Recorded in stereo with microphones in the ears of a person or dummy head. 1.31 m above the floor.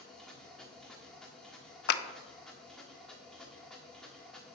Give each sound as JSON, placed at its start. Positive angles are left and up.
{"t": 0.0, "sound": "a machine running", "side_deg": 0, "distance_m": 1.6}
{"t": 1.9, "sound": "a clap", "side_deg": 65, "distance_m": 0.7}